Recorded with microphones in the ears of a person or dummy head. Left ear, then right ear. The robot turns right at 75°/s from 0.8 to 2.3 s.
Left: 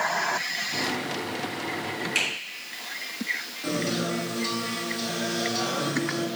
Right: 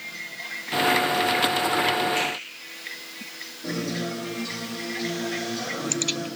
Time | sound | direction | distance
2.1 | a finger snap | 50° left (ahead or behind) | 3 m
3.6 | a guitar | 60° left (ahead or behind) | 2.5 m